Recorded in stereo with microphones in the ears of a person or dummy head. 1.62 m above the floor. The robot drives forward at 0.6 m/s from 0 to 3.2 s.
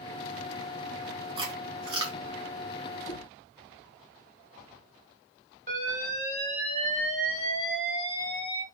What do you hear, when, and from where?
1.4 s chewing: 30° right (ahead or behind), 2.5 m; by 2.2 s 25° right (ahead or behind), 3 m
3.1 s knocking: 30° left (ahead or behind), 1.9 m
5.7 s an alarm: 40° right (ahead or behind), 4 m